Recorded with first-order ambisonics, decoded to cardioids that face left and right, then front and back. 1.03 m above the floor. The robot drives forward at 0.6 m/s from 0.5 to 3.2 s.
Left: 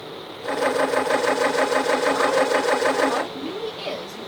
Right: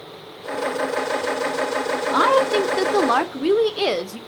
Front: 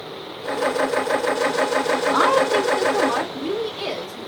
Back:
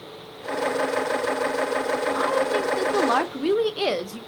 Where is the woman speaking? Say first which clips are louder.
Right 3 dB, front 7 dB; 50° right, 0.6 m; by 4.2 s 120° right, 0.5 m.